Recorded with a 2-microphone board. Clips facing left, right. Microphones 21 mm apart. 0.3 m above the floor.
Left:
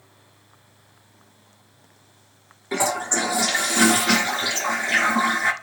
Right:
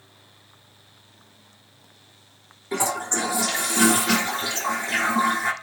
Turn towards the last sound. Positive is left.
turn(degrees=20)  # may be behind; listen again after turning